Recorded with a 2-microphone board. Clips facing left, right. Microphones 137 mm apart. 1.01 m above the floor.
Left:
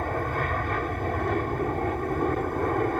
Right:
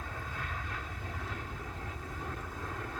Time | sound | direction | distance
0.0 | an aircraft | 65° left (ahead or behind) | ?